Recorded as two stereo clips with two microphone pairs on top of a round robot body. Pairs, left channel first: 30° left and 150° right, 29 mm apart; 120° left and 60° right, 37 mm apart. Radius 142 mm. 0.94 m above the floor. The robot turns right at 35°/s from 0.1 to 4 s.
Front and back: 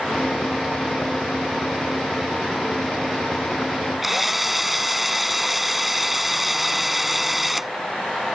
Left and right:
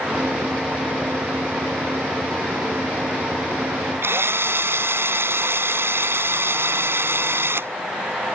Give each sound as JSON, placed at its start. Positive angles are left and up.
{"t": 4.0, "sound": "a drill", "azimuth_deg": -65}